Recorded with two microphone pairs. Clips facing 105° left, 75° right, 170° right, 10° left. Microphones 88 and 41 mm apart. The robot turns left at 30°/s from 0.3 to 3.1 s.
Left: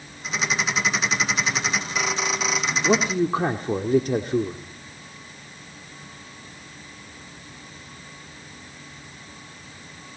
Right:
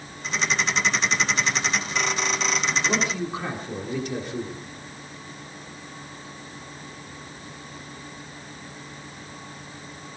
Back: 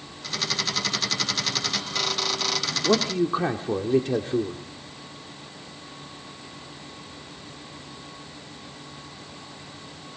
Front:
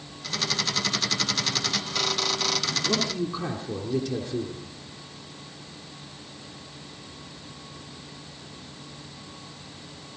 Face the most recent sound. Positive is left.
turn(degrees=145)